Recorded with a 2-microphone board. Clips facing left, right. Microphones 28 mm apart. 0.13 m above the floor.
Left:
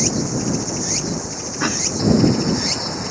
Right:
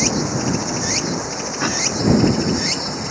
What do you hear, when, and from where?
0.0 s running water: 35° right (ahead or behind)
1.6 s a cough: 5° left (ahead or behind)